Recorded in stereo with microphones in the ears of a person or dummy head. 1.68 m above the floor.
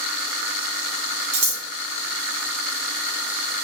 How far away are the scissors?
About 0.8 m.